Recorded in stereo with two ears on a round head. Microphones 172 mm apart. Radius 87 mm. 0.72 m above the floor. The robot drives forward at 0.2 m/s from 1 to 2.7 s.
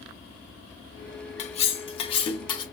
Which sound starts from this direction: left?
Cutlery clinking, at 1.4 s.